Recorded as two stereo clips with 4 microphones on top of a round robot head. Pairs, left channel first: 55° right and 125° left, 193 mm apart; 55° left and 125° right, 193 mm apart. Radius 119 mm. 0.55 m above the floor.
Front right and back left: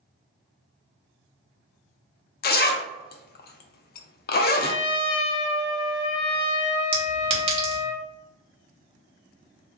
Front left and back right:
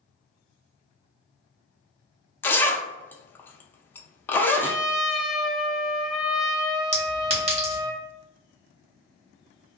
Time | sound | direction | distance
2.4 | a zipper | 25° right | 0.5 m
4.5 | a trumpet | 35° right | 0.6 m
6.9 | a clink | straight behind | 1.3 m